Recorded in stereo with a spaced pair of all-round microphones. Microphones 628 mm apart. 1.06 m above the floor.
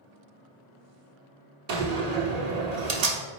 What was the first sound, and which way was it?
A door slam, 85° right.